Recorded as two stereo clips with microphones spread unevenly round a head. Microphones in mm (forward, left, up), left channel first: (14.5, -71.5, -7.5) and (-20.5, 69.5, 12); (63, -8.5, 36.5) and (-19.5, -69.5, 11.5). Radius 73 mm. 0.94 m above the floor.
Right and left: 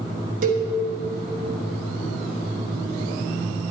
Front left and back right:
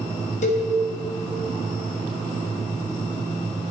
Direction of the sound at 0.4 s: 70° left.